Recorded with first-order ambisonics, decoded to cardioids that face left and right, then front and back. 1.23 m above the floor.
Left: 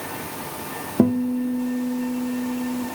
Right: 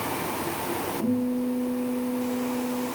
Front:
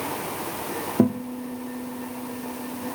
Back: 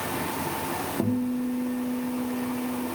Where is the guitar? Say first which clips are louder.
Left 5 dB, front 3 dB; 60° left, 0.9 m.